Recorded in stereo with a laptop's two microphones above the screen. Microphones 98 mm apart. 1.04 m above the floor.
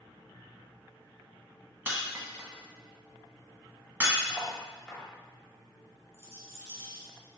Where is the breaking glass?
25° right (ahead or behind), 1.2 m.